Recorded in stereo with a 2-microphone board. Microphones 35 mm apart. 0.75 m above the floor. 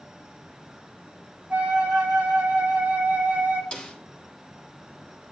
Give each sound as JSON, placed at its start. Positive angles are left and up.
{"t": 1.5, "sound": "a flute", "side_deg": -35, "distance_m": 2.5}
{"t": 3.7, "sound": "a snare drum", "side_deg": 25, "distance_m": 2.0}